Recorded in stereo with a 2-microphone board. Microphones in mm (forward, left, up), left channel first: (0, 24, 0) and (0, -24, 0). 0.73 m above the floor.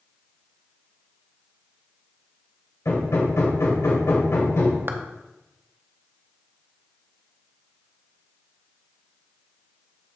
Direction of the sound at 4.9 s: 45° right (ahead or behind).